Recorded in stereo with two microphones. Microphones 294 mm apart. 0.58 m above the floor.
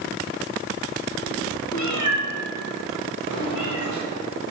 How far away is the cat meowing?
About 2.5 m.